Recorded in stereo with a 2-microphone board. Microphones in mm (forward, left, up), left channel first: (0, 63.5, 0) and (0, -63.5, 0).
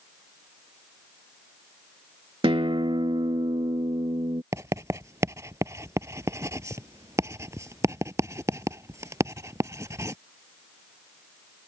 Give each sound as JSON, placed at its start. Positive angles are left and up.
{"t": 2.4, "sound": "a guitar", "side_deg": -45}
{"t": 4.5, "sound": "writing", "side_deg": -25}